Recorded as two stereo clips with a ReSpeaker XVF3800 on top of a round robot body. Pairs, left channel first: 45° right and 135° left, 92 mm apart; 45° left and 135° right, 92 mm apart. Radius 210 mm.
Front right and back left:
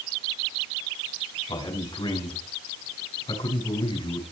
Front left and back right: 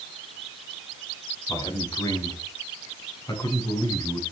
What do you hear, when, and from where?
1.5 s a man speaking: 10° right, 6.5 m